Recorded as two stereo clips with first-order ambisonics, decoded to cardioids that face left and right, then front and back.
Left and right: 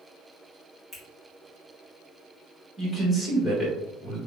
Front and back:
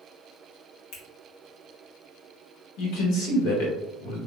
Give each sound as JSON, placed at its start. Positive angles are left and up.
{"t": 0.9, "sound": "a finger snap", "azimuth_deg": -5, "distance_m": 1.1}
{"t": 2.8, "sound": "a man speaking", "azimuth_deg": 0, "distance_m": 1.4}